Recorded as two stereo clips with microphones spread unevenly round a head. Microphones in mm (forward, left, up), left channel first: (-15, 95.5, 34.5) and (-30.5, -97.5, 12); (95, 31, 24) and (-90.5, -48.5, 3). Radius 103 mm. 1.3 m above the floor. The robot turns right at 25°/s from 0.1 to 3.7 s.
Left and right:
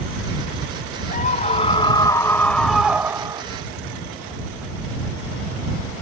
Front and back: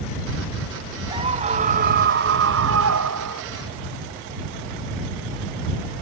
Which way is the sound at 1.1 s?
135° left.